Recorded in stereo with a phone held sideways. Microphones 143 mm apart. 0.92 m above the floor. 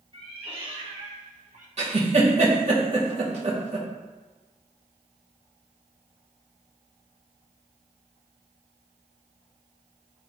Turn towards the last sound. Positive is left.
turn(degrees=-45)  # may be behind; listen again after turning